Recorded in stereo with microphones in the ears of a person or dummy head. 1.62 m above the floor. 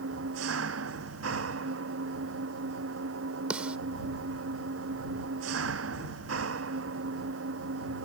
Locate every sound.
0.0 s an engine running: 75° right (ahead or behind)
3.5 s a snare drum: 10° right (ahead or behind)